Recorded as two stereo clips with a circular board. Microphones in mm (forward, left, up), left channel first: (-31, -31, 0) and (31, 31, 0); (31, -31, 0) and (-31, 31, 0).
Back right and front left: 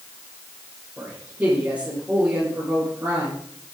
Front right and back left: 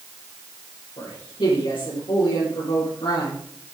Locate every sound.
1.0 s a woman speaking: 25° right, 7.5 m